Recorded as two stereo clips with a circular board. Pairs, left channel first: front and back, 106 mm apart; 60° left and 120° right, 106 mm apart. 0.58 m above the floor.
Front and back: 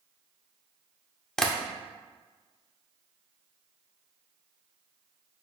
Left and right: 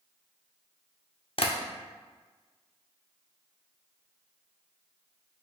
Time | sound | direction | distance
1.4 | tapping | 85° left | 0.6 m